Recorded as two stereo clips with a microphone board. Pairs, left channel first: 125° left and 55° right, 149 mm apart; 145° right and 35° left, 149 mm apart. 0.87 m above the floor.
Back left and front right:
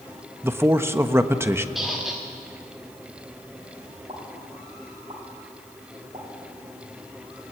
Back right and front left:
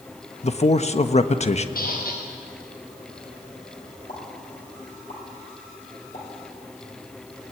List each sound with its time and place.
0.4 s a man speaking: 125° right, 1.2 m
1.8 s a squeak: 145° right, 5 m
4.1 s a pop: 105° right, 8.5 m